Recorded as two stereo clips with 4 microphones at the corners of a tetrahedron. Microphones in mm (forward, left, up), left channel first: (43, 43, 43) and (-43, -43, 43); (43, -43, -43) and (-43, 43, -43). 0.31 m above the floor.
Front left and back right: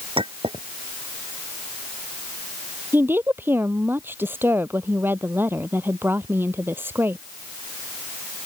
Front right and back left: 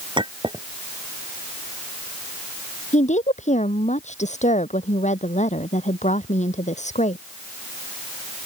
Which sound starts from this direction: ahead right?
A woman speaking, at 2.9 s.